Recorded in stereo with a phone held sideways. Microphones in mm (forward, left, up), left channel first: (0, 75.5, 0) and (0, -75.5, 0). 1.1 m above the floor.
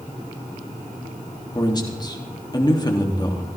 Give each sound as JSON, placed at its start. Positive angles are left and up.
{"t": 1.6, "sound": "a man speaking", "side_deg": 25, "distance_m": 2.5}